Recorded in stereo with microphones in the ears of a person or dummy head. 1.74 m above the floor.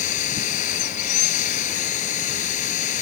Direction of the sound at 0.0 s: 45° left (ahead or behind).